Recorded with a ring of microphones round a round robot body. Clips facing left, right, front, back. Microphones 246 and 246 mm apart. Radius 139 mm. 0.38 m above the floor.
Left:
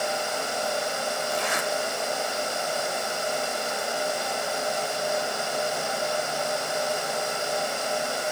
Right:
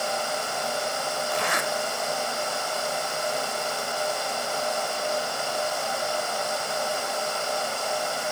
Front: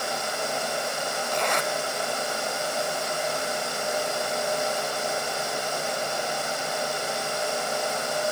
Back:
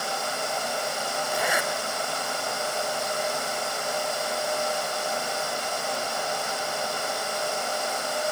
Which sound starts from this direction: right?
A zipper, at 1.3 s.